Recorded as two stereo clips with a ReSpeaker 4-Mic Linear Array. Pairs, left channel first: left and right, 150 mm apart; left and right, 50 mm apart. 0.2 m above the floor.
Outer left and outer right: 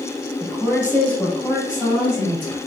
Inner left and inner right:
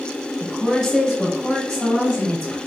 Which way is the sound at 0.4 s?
5° left (ahead or behind).